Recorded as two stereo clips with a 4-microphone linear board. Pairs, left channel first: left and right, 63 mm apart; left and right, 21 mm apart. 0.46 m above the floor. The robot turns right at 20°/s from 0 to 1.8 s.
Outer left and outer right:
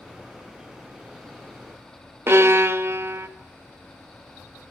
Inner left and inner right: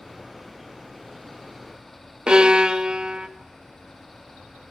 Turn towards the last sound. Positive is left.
turn(degrees=-40)  # may be behind; listen again after turning